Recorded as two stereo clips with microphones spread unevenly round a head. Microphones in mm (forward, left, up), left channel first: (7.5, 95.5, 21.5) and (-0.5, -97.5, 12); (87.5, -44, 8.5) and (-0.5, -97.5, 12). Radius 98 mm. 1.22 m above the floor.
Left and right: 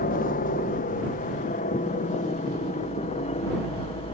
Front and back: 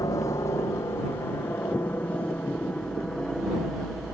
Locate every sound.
0.0 s a helicopter: 80° left; by 4.2 s 125° left